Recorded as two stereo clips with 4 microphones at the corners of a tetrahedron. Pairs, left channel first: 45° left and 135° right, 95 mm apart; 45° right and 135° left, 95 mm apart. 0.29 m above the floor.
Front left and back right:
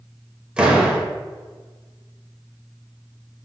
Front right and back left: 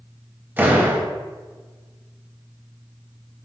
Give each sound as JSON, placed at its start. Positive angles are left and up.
{"t": 0.6, "sound": "a door slam", "azimuth_deg": 160, "distance_m": 0.8}